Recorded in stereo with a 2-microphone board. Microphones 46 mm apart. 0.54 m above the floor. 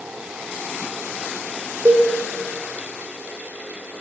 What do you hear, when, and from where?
1.9 s a cowbell: 50° right (ahead or behind), 0.6 m